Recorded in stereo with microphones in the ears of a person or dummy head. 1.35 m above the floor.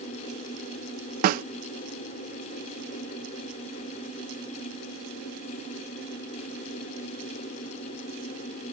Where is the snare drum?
50° right (ahead or behind).